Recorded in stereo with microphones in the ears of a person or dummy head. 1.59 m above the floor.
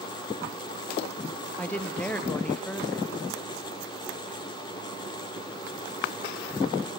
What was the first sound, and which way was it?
A woman speaking, 5° left (ahead or behind).